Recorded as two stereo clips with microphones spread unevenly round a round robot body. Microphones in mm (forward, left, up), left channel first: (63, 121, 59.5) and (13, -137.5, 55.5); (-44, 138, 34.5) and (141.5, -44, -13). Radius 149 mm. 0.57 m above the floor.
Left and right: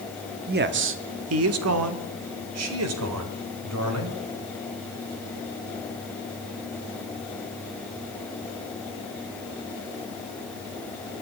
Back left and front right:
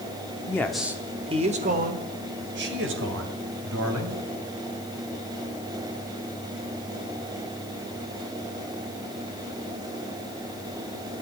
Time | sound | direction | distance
0.5 | a man speaking | 140° right | 0.8 m